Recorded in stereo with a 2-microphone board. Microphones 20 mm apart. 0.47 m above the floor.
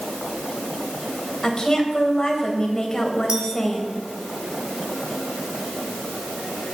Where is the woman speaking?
40° left (ahead or behind), 3 m.